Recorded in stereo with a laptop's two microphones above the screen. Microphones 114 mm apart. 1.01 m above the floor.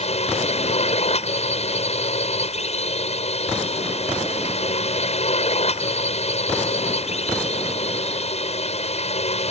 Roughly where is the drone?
Left.